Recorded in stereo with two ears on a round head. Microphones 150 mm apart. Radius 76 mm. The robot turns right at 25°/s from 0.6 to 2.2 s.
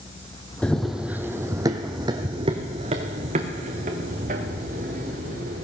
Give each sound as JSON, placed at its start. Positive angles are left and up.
{"t": 0.6, "sound": "running footsteps", "side_deg": 5, "distance_m": 0.8}